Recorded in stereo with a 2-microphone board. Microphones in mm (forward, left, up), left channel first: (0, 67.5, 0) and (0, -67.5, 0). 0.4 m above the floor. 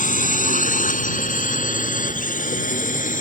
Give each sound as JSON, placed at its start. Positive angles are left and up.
{"t": 0.0, "sound": "a drone", "side_deg": 70}